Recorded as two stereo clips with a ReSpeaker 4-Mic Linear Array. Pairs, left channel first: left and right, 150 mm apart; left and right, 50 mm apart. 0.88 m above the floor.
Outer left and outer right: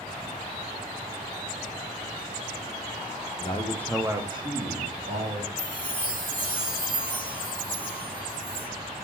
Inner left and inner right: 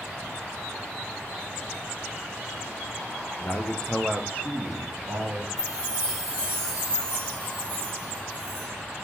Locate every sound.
3.4 s a man speaking: 45° left (ahead or behind), 0.6 m; by 5.5 s 60° right (ahead or behind), 1.4 m
5.6 s a chime: 10° left (ahead or behind), 1.5 m